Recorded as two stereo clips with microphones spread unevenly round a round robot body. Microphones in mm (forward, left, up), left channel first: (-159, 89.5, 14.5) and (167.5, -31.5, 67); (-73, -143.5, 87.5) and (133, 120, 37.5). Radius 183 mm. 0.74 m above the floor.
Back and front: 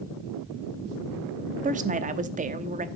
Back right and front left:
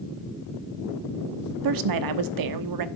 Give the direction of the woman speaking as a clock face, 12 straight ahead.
10 o'clock.